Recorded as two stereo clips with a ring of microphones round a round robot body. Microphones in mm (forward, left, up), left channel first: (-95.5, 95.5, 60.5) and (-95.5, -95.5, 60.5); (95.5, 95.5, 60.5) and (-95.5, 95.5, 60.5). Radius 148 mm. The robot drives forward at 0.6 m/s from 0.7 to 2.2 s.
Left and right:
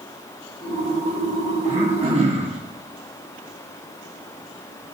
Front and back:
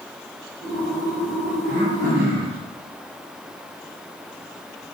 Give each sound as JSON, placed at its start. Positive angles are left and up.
{"t": 1.6, "sound": "throat clearing", "azimuth_deg": -140, "distance_m": 1.8}